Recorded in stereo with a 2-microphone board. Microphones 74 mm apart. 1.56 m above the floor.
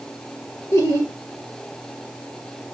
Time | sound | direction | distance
0.7 | laughter | 40° left (ahead or behind) | 0.7 m